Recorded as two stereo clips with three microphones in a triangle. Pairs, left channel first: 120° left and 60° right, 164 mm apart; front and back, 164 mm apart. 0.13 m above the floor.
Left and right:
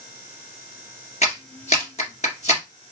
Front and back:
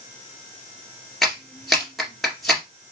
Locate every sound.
1.2 s a clap: 90° left, 1.9 m